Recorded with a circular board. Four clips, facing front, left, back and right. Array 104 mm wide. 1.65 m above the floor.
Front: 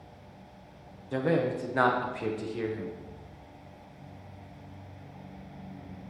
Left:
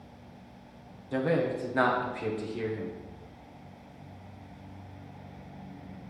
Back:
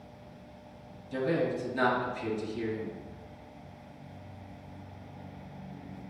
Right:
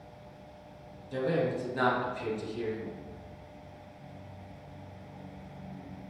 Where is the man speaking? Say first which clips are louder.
Left 2 dB, front 2 dB; 30° left, 1.2 m.